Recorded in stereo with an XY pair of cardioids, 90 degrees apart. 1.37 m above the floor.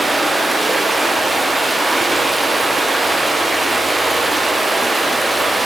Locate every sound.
0.0 s running water: 10° right, 0.8 m